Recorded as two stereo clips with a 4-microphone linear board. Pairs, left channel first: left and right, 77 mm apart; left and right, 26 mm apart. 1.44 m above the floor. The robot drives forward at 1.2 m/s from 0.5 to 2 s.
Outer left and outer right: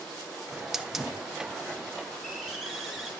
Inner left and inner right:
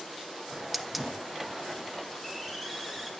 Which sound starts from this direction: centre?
A hiss, at 0.5 s.